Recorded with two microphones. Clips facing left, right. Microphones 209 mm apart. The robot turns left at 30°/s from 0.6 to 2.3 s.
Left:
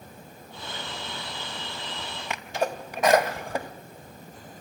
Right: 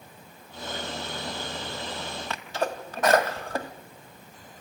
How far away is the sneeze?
About 1.6 m.